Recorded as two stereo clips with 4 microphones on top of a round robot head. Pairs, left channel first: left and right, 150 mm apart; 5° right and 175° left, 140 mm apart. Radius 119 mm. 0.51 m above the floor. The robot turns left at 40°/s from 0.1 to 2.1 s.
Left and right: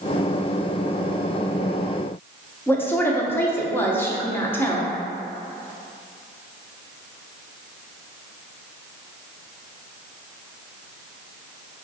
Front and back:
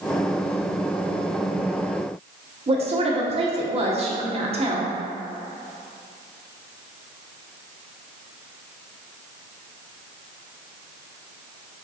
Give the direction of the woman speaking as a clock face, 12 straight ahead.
7 o'clock.